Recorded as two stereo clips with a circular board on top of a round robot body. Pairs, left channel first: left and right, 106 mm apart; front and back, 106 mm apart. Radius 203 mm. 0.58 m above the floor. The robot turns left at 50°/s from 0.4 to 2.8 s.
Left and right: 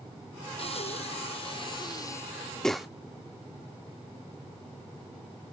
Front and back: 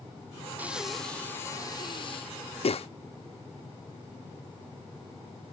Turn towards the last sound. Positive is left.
turn(degrees=-5)